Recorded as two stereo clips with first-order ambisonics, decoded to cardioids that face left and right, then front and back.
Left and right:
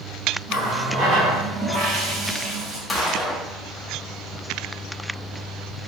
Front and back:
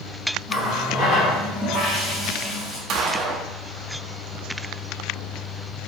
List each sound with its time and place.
0.5 s a running tap: 50° right, 1.7 m
2.9 s a gunshot: 165° left, 0.6 m